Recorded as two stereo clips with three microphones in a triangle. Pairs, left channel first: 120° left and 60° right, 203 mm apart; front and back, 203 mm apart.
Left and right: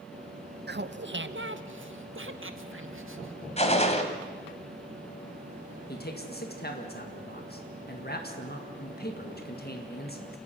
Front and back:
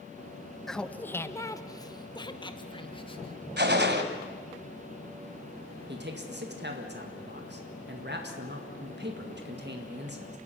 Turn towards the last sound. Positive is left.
turn(degrees=155)